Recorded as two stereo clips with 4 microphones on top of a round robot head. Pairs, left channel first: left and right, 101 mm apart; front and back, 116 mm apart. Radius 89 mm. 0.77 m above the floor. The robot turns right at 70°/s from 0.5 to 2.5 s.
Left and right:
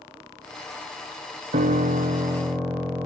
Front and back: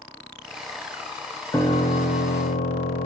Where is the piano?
75° right, 1.7 m; by 3.1 s 10° right, 1.7 m.